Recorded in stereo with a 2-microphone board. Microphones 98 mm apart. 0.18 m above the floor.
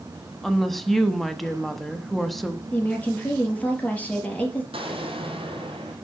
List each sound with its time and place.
0.4 s a woman speaking: centre (ahead or behind), 1.0 m
2.7 s a woman speaking: 15° left (ahead or behind), 4.5 m
4.7 s an explosion: 80° right, 3 m